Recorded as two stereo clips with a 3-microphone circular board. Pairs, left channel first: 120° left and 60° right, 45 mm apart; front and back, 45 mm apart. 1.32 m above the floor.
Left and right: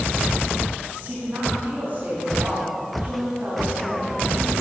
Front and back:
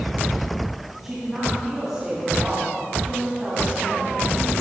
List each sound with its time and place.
1.0 s a woman speaking: 100° right, 3 m